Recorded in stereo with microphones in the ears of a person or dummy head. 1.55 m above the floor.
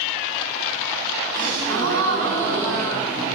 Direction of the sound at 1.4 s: 70° right (ahead or behind).